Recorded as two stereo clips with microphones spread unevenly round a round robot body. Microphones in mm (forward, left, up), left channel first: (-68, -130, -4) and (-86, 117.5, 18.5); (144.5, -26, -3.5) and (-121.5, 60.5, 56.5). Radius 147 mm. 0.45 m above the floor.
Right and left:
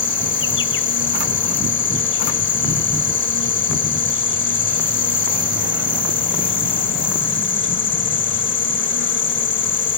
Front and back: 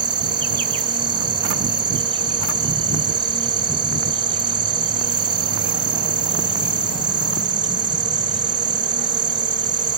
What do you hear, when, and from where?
0.0 s an insect: 120° right